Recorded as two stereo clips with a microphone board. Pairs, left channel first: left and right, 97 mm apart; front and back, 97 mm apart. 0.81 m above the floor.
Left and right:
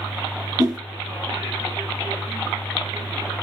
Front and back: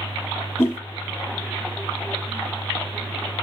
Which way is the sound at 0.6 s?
50° right.